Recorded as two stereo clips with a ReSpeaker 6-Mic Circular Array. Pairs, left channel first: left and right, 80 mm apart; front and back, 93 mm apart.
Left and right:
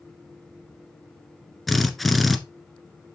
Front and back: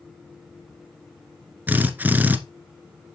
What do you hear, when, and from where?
1.7 s a drill: 175° left, 1.4 m